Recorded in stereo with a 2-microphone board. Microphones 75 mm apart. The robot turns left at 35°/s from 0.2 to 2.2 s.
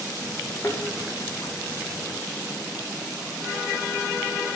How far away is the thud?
About 2.5 m.